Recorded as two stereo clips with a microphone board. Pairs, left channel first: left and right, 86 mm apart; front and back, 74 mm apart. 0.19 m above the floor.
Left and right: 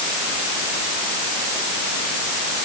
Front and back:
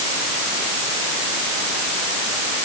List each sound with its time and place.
Only background noise.